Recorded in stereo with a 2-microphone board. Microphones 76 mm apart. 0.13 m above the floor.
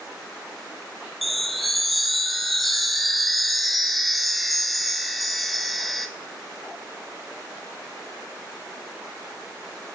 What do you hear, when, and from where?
1.2 s a chime: centre (ahead or behind), 0.6 m